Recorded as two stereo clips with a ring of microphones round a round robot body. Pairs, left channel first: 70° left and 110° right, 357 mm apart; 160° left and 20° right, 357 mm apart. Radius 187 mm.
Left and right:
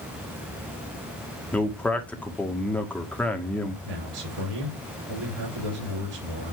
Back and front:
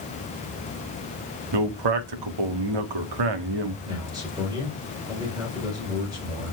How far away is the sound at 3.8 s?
About 4.5 m.